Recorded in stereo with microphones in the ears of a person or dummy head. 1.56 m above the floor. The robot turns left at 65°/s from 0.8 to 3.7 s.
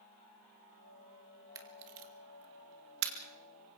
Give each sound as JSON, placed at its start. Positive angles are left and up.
{"t": 1.6, "sound": "a camera shutter", "side_deg": -30, "distance_m": 2.5}